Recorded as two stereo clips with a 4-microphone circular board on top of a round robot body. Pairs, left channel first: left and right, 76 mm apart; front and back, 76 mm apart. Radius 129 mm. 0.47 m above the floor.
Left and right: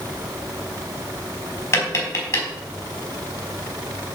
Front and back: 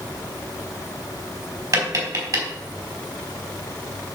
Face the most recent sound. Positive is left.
turn(degrees=145)